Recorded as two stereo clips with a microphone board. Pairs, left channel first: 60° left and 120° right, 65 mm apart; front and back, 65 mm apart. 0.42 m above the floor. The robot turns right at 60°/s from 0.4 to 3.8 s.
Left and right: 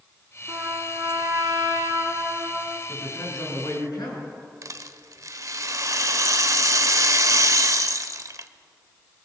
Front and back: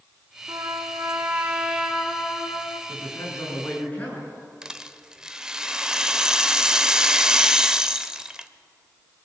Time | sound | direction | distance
0.5 | a trumpet | straight behind | 2.5 m
2.9 | a woman speaking | 10° left | 6.5 m
4.6 | a rattle | 100° right | 0.7 m